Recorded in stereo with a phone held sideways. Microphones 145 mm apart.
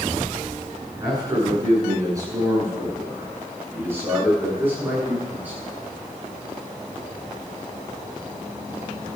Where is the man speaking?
25° right (ahead or behind), 10 m; by 5.6 s 10° right (ahead or behind), 10.5 m.